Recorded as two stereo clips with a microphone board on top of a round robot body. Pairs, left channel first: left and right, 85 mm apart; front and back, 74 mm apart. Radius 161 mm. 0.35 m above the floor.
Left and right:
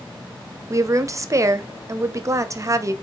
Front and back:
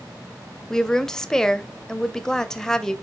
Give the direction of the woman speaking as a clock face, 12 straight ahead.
3 o'clock.